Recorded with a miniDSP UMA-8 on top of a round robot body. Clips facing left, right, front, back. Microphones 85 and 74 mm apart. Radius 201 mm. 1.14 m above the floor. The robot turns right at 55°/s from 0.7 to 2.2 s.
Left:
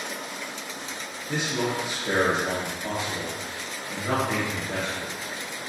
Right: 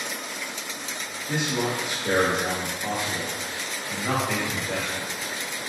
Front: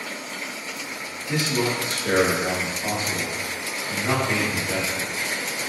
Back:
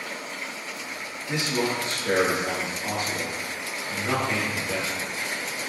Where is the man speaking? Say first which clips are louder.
Right 1 dB, front 2 dB; 115° right, 1.3 m; by 5.6 s 65° right, 1.3 m.